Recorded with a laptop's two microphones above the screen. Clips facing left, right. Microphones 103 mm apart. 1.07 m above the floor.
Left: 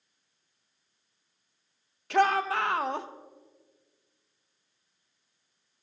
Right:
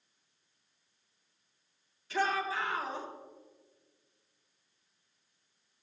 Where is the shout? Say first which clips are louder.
Left 8 dB; 70° left (ahead or behind), 0.7 m.